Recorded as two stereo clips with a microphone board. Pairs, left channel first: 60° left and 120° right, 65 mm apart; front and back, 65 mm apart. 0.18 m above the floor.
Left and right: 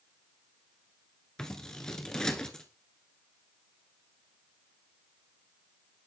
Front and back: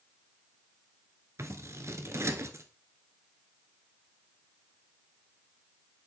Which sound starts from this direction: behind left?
Scissors, at 1.4 s.